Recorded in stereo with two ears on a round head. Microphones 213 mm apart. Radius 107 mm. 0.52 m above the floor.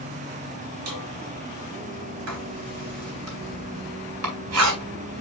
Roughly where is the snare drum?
Right.